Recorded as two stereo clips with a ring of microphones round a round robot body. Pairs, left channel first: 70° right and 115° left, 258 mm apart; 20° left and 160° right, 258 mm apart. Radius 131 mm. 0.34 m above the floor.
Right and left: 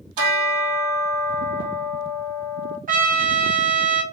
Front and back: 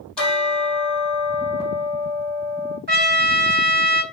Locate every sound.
0.2 s a bell: 110° left, 2 m
2.9 s a trumpet: 160° left, 1.4 m